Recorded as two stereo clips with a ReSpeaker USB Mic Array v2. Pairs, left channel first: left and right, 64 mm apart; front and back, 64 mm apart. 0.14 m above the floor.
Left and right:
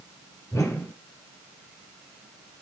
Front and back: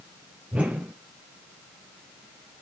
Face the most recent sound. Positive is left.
turn(degrees=110)